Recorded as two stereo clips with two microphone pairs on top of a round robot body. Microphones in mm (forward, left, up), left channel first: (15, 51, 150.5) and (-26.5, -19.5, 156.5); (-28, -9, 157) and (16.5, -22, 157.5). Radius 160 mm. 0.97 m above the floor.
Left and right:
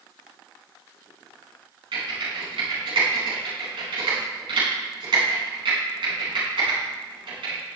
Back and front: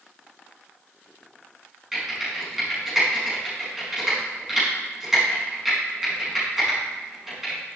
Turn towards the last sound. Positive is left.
turn(degrees=-100)